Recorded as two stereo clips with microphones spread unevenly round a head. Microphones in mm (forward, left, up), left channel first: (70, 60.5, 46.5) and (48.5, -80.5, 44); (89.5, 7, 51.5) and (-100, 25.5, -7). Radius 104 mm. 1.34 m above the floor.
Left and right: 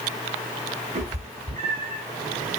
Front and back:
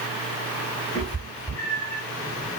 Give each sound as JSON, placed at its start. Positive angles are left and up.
{"t": 0.9, "sound": "a cat meowing", "azimuth_deg": -65, "distance_m": 3.5}